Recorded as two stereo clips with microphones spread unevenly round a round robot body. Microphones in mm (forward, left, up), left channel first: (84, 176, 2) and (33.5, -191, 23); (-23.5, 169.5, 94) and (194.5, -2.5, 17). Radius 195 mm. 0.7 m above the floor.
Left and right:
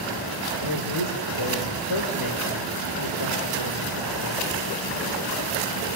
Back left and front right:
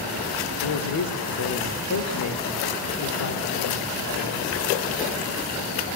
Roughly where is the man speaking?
Behind left.